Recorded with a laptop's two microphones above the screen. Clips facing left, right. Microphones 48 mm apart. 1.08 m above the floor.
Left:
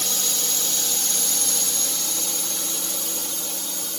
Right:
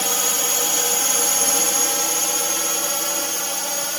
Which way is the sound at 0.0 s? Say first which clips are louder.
Right 6 dB; 45° right (ahead or behind).